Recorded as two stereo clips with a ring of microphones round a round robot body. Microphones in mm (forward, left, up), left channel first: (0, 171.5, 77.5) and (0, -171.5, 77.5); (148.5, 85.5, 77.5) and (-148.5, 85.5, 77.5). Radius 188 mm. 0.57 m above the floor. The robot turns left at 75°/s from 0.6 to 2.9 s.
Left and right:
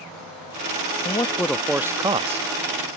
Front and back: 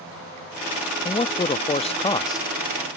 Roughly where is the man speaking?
Ahead left.